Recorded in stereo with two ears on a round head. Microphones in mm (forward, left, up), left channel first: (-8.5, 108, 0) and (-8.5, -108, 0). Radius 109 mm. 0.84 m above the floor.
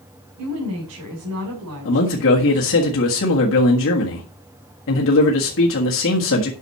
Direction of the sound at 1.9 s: 55° left (ahead or behind).